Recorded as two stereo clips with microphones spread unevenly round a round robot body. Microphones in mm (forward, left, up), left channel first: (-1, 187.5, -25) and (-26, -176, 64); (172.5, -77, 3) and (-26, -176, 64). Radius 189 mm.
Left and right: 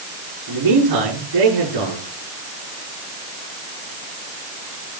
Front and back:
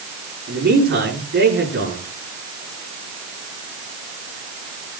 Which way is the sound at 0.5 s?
120° right.